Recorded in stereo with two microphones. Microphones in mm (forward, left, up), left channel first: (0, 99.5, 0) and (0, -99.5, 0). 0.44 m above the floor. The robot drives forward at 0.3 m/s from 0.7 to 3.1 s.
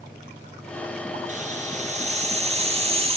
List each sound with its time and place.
1.3 s a hiss: 40° right (ahead or behind), 2.0 m; by 3.2 s 30° right (ahead or behind), 2.5 m